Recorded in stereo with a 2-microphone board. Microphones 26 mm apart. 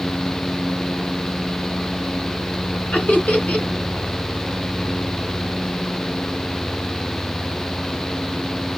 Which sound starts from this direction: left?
Laughter, at 2.9 s.